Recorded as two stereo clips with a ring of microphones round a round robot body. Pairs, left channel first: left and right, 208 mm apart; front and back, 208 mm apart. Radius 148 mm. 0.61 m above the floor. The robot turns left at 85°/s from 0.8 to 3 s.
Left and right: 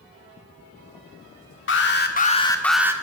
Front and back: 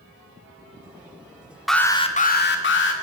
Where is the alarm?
90° left, 1.7 m; by 2.9 s 15° right, 1.7 m.